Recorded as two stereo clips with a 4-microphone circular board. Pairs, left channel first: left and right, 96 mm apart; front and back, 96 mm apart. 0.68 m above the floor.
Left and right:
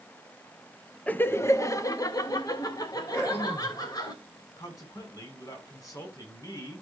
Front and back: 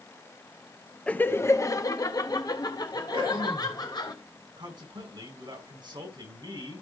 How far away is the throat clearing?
About 9 m.